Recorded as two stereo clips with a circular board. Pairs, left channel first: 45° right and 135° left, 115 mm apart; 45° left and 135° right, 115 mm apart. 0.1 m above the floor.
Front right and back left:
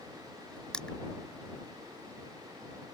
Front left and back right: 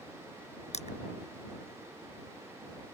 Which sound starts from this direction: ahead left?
Crushing, at 0.7 s.